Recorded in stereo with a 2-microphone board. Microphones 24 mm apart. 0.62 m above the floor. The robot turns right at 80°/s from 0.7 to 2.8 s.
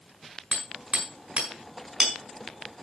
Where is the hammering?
70° right (ahead or behind), 6 m; by 2.1 s centre (ahead or behind), 6 m.